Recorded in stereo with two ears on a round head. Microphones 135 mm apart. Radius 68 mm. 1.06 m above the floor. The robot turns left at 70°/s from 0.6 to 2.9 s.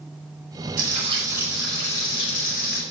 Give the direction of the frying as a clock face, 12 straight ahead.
4 o'clock.